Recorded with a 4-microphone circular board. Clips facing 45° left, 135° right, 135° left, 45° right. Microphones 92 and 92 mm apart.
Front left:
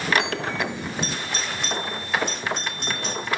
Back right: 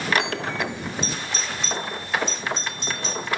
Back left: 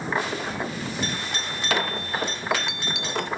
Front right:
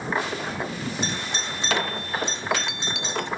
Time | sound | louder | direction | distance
1.0 | a doorbell | front left 1 dB, even | 20° left | ?